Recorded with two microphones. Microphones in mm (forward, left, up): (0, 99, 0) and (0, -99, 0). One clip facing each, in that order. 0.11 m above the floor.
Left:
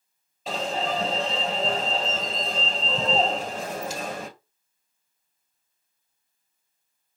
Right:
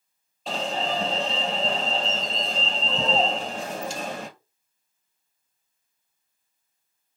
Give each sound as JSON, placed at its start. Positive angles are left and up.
{"t": 0.5, "sound": "an alarm", "side_deg": 5, "distance_m": 1.7}